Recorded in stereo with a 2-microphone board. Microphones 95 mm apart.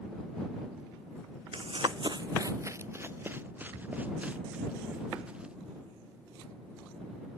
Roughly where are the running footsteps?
Right.